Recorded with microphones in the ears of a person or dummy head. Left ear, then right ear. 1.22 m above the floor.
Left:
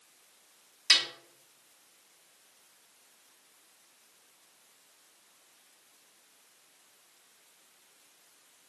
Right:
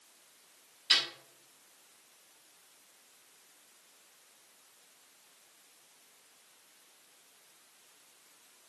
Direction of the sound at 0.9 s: 40° left (ahead or behind).